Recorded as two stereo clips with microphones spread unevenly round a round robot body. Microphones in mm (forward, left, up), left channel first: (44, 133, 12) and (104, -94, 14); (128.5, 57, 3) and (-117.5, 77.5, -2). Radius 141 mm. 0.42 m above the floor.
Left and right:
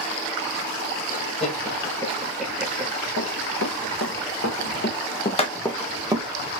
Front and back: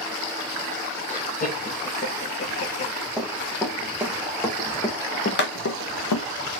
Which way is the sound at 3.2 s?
85° left.